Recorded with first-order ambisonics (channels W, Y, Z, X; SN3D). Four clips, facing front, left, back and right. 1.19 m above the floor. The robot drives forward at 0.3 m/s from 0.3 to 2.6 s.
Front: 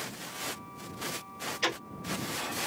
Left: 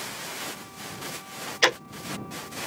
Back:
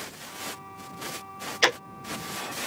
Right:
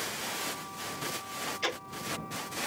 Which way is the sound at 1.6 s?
130° left.